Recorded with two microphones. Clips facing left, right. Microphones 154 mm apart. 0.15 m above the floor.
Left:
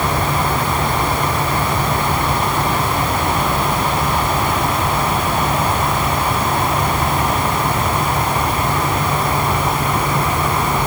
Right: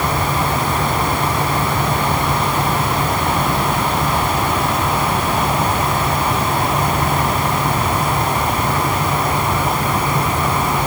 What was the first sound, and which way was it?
Only background noise.